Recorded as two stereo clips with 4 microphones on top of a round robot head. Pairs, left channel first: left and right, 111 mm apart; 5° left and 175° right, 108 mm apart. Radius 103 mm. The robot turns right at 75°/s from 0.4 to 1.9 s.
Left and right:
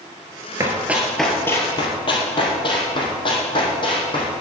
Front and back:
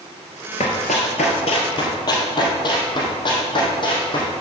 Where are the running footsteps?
35° right, 1.3 m; by 4.4 s 45° left, 4 m.